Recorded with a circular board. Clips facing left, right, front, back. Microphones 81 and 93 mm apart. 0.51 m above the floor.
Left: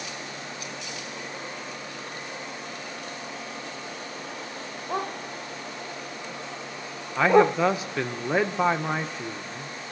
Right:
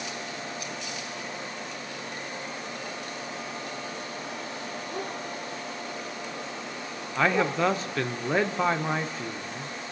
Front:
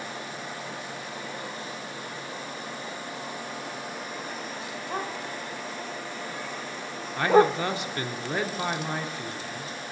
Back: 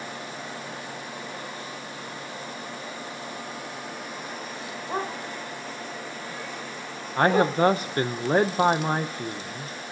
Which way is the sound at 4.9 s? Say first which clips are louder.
Left 6 dB, back 3 dB; 100° left.